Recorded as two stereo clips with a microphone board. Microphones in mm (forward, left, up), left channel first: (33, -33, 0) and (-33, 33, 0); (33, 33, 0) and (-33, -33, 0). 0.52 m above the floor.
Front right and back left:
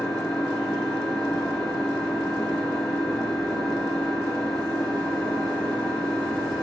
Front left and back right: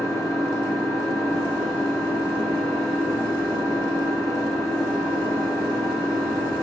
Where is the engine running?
125° right, 3 m.